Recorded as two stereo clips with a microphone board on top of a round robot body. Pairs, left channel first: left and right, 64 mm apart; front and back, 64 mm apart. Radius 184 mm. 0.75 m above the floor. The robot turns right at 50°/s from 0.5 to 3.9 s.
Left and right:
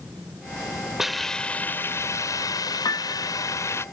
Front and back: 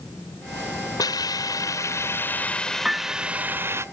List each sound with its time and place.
1.0 s a hiss: 5° right; by 3.9 s 135° left
2.9 s a piano: 100° left; by 3.3 s 125° left